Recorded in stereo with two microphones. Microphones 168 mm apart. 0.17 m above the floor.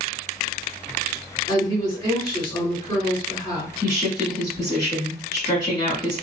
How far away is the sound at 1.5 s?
About 1.7 m.